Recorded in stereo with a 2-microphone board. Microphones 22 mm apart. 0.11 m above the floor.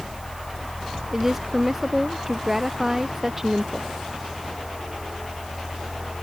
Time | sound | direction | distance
1.1 | a woman speaking | 15° right (ahead or behind) | ?